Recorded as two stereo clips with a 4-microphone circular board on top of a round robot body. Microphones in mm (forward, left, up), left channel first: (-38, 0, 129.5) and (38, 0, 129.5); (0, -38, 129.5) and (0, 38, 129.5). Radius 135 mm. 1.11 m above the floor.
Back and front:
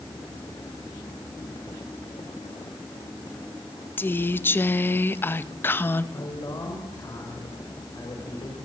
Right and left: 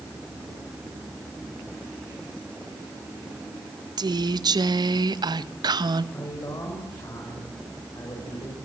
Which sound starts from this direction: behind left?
A woman speaking, at 4.0 s.